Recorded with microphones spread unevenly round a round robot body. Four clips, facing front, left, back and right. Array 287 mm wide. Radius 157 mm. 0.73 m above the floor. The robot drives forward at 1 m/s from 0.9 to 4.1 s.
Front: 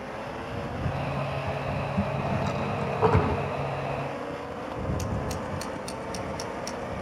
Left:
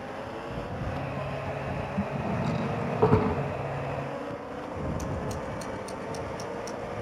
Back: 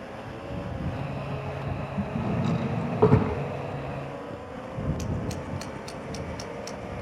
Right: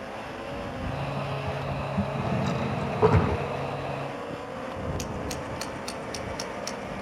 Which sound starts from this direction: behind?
A drawer, at 2.1 s.